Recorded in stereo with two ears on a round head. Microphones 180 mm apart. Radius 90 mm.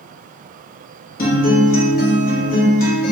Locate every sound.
1.2 s a guitar: 45° left (ahead or behind), 1.0 m